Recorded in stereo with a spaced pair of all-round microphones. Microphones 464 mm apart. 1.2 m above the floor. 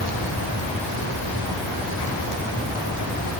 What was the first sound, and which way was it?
Only background noise.